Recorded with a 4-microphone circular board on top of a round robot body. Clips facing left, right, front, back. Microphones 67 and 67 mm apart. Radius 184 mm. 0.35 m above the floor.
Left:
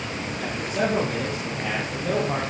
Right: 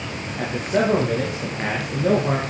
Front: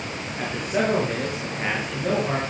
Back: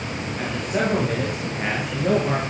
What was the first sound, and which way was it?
A man speaking, 85° right.